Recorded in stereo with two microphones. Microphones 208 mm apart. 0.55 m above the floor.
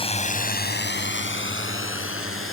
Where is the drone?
25° left (ahead or behind); by 2.5 s 80° left.